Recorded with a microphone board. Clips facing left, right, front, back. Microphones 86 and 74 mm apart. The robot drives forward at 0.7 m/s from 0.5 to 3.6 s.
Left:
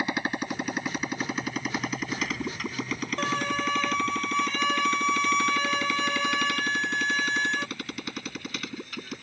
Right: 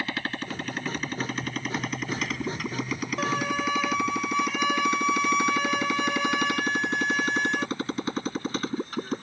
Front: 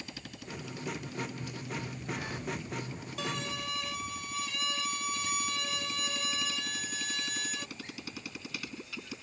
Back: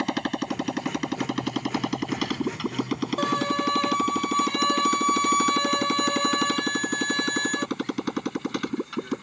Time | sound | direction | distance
0.0 | a motorcycle | 160° left | ?
3.2 | a violin | 175° right | ?